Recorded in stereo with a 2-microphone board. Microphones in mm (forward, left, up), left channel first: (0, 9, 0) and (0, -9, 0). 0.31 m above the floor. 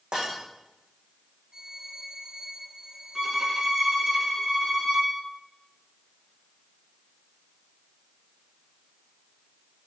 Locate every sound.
0.1 s breaking glass: 70° right (ahead or behind), 7.5 m
1.5 s a violin: 40° right (ahead or behind), 2 m
3.1 s a violin: 30° right (ahead or behind), 3.5 m